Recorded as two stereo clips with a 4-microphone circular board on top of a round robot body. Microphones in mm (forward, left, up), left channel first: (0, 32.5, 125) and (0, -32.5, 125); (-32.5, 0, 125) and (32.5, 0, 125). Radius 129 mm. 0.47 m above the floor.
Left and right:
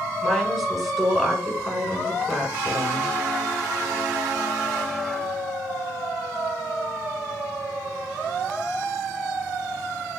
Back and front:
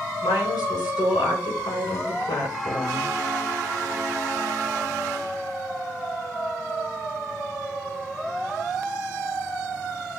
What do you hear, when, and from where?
0.2 s a woman speaking: 175° right, 6 m